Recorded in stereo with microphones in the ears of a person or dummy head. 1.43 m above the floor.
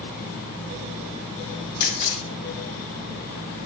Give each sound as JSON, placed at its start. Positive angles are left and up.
{"t": 1.8, "sound": "a camera shutter", "side_deg": 45, "distance_m": 1.1}